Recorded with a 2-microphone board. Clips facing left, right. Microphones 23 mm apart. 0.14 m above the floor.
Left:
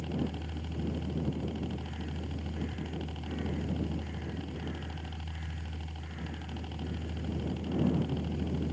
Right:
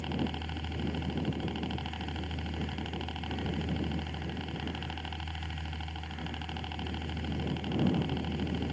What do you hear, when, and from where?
0.0 s a helicopter: 40° right (ahead or behind)